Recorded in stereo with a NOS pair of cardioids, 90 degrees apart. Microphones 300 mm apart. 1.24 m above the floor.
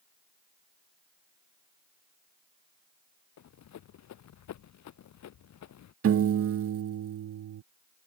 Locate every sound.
3.4 s running footsteps: 65° left
6.0 s a piano: 50° right